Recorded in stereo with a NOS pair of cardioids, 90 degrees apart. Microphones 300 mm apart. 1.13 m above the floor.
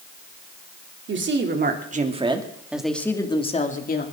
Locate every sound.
1.1 s a woman speaking: 45° right, 3 m; by 4.0 s 35° left, 2.5 m